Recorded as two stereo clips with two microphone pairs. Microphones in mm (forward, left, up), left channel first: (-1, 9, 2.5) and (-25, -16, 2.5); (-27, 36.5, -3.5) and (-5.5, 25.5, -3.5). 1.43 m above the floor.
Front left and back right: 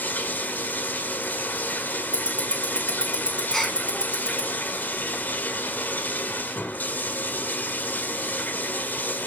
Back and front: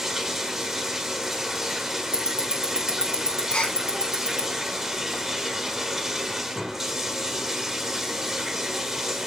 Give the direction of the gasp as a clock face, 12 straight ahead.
8 o'clock.